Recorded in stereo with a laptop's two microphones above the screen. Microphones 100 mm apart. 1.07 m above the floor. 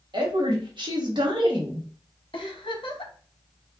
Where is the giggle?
60° left (ahead or behind), 0.6 m.